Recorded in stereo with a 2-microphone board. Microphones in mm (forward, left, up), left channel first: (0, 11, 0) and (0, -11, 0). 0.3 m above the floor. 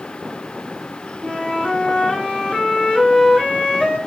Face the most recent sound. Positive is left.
turn(degrees=70)  # may be behind; listen again after turning